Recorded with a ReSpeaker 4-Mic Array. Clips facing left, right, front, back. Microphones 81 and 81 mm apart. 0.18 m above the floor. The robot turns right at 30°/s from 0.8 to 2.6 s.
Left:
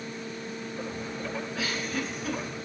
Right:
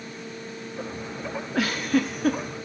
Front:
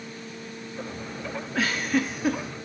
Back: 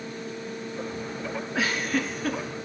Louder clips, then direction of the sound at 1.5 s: Right 12 dB, front 2 dB; 95° right.